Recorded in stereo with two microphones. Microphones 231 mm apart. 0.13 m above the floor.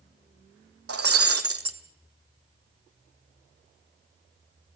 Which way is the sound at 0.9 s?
85° right.